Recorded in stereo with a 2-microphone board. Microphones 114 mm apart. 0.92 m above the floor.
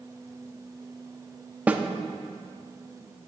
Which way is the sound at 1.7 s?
15° right (ahead or behind).